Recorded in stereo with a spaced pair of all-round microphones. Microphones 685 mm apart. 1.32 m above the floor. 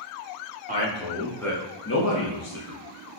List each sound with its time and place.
0.7 s a man speaking: 10° right (ahead or behind), 1.5 m; by 2.8 s 60° left (ahead or behind), 0.9 m